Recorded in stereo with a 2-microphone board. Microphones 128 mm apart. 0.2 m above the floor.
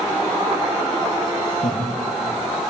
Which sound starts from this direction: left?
Laughter, at 1.6 s.